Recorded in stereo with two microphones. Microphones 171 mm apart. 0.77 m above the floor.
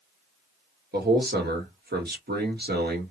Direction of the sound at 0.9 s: 65° right (ahead or behind).